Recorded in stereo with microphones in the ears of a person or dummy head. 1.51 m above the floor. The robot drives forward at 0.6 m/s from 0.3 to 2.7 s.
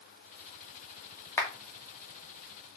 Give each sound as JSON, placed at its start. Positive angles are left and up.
{"t": 1.4, "sound": "a clap", "side_deg": 15, "distance_m": 2.5}